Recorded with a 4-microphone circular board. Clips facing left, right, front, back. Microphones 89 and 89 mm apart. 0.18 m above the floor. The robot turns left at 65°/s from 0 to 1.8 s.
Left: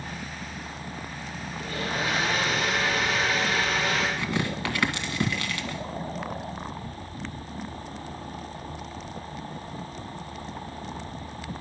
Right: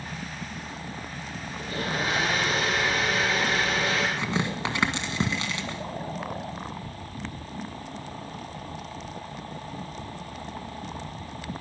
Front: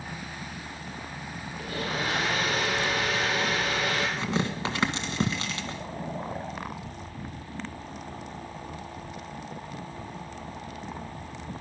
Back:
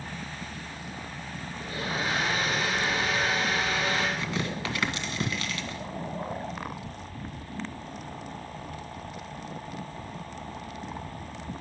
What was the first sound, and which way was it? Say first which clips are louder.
A blender: even, front 1 dB; 25° right.